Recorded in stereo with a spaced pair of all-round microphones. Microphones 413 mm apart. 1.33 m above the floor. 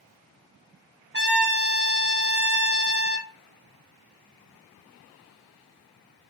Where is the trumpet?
25° right (ahead or behind), 0.8 m.